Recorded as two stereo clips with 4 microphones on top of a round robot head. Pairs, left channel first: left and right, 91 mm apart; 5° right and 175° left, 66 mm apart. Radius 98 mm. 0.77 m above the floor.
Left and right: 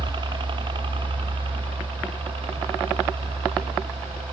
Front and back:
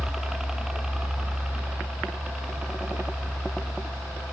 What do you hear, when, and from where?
0.0 s a helicopter: 105° right; by 4.3 s 100° right